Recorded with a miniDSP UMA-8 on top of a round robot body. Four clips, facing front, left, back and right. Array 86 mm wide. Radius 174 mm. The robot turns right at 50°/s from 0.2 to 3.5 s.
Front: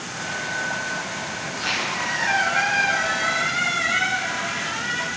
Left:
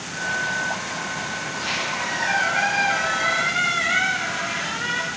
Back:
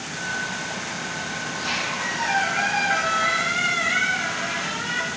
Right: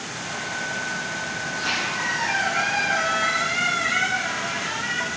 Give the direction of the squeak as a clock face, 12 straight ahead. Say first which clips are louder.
Right 2 dB, front 2 dB; 12 o'clock.